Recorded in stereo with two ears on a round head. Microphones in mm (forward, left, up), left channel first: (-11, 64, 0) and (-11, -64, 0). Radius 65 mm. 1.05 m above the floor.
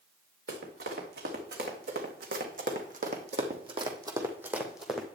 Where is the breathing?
No breathing in this recording.